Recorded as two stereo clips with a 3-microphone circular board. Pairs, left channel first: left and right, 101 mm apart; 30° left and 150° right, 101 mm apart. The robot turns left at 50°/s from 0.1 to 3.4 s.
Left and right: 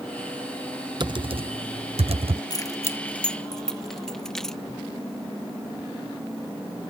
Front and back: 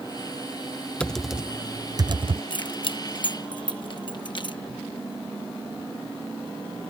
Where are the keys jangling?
50° left; by 4.6 s 5° left.